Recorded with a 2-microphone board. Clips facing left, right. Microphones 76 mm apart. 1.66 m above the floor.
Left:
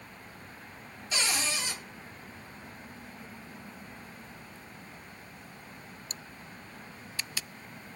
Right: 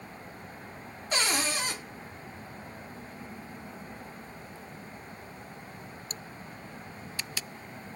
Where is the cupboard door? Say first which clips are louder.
Right 3 dB; 45° right (ahead or behind), 0.6 m.